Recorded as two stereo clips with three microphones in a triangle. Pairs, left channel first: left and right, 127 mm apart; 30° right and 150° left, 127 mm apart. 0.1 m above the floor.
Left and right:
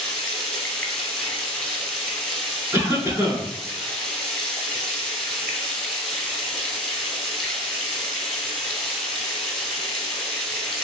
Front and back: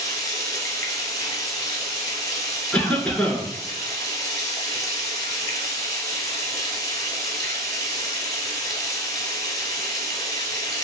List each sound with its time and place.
0.0 s running water: 10° left, 1.0 m
2.7 s a cough: 90° right, 1.1 m